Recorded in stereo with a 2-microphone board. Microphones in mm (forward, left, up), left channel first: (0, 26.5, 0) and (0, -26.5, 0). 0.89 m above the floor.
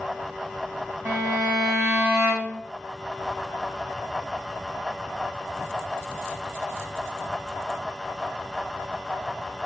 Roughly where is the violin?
Right.